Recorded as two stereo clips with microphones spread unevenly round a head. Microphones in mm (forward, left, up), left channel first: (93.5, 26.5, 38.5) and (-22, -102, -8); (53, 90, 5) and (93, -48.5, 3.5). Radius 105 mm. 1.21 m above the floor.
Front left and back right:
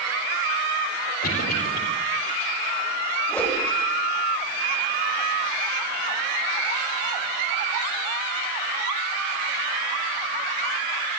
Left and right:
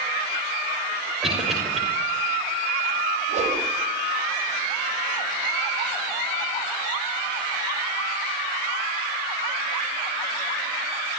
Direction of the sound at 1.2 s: 15° left.